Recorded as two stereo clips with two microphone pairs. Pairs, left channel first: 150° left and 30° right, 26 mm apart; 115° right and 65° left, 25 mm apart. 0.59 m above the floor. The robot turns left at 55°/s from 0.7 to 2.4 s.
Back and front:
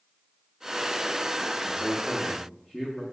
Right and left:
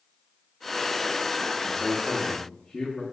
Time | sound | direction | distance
1.6 | a man speaking | 120° right | 0.8 m